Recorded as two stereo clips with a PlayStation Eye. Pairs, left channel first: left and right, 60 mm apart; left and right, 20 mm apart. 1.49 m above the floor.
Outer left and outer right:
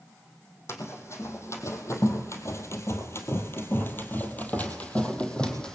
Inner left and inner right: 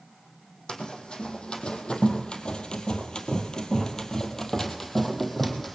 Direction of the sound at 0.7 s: 50° left (ahead or behind).